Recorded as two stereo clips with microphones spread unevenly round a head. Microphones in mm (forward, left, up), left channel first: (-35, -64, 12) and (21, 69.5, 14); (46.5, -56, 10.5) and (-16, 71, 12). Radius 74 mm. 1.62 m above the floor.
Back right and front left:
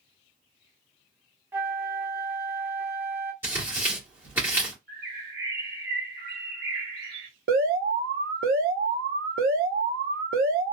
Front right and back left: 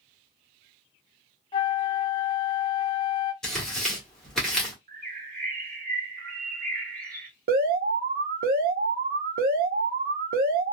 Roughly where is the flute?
Ahead.